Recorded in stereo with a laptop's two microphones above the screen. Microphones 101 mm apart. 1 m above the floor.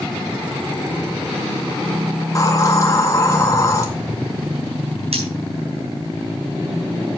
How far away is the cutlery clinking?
About 4 m.